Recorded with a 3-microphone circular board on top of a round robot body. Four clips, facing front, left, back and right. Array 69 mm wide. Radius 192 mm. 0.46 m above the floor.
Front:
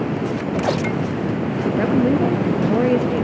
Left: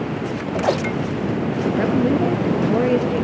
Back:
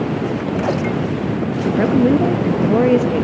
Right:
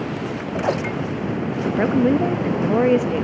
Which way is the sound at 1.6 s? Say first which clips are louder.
Right 1 dB, back 3 dB; 115° right.